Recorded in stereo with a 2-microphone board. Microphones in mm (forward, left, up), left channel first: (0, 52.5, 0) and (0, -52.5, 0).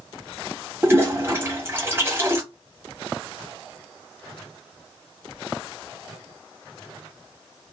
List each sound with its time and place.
0.8 s a toilet flushing: 25° right (ahead or behind), 1.2 m